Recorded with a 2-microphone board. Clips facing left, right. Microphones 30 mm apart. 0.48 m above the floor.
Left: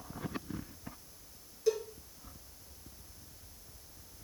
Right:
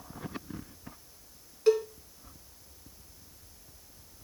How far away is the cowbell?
About 3 m.